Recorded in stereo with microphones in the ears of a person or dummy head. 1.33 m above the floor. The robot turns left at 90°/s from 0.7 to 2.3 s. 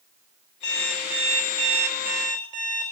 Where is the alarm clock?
25° left, 3 m; by 2.9 s 120° right, 3 m.